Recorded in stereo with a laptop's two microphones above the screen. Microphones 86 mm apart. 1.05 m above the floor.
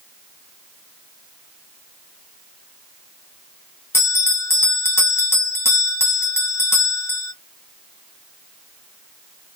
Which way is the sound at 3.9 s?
30° left (ahead or behind).